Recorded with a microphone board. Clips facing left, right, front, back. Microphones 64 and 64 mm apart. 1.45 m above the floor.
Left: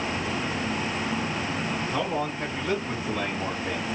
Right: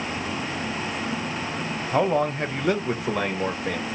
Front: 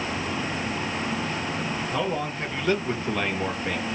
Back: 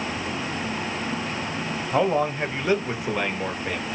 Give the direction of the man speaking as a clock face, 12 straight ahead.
4 o'clock.